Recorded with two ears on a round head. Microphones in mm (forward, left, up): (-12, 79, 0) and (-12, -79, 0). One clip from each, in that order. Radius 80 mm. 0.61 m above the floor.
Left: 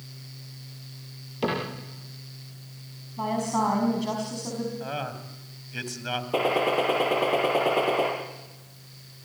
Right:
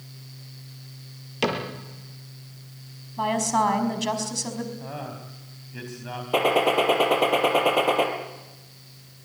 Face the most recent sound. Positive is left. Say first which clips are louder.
# right 4 dB
turn(degrees=-35)  # may be behind; listen again after turning